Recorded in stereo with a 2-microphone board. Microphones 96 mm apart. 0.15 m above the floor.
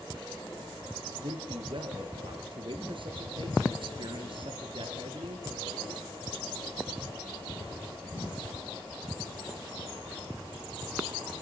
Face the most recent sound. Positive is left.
turn(degrees=-60)  # may be behind; listen again after turning